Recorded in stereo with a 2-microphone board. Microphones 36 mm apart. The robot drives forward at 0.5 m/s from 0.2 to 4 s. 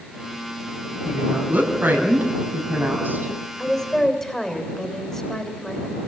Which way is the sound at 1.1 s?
55° right (ahead or behind).